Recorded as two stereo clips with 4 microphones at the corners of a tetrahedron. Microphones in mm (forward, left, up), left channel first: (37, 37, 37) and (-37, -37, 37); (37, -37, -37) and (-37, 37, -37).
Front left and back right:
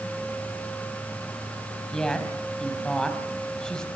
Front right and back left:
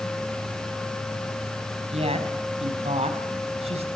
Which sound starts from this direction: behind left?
A woman speaking, at 1.9 s.